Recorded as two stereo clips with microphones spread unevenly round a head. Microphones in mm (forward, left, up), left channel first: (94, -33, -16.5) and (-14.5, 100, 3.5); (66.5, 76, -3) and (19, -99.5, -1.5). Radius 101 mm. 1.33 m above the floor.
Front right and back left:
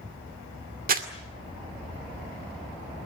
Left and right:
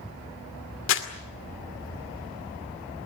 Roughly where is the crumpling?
Left.